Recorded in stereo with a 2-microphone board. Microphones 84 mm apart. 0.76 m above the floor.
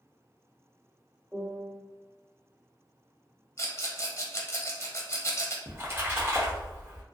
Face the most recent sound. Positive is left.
turn(degrees=-30)  # may be behind; listen again after turning